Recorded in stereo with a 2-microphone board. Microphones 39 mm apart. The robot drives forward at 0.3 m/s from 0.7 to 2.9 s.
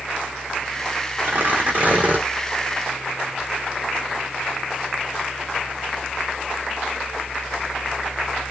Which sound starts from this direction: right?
Tearing paper, at 1.2 s.